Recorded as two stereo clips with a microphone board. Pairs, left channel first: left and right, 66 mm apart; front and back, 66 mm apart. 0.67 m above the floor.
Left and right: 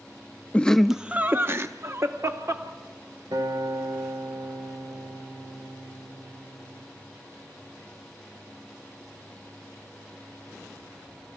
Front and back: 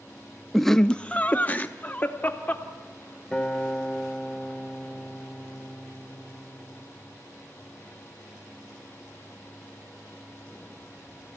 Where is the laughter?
90° left, 0.6 m; by 2.6 s 60° right, 1.5 m.